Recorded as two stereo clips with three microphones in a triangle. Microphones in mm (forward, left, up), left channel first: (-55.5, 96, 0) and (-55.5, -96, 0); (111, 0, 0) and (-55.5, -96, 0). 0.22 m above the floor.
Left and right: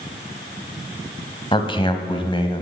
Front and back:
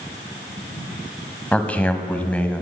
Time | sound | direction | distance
1.5 | a man speaking | 105° left | 1.0 m